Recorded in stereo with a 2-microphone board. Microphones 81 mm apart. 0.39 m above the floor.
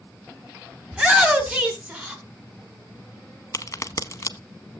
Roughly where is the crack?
Left.